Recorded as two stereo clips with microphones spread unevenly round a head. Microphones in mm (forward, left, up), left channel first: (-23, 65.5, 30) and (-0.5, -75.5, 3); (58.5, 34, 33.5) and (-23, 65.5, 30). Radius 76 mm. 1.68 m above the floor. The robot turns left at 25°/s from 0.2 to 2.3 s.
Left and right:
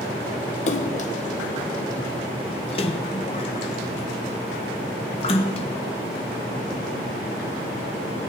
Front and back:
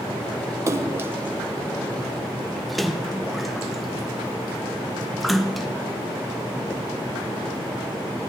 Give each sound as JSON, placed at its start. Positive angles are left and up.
{"t": 0.7, "sound": "a splash", "azimuth_deg": 105, "distance_m": 1.0}